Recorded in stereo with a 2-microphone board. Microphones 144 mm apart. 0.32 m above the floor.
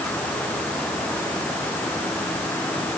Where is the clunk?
I don't hear a clunk.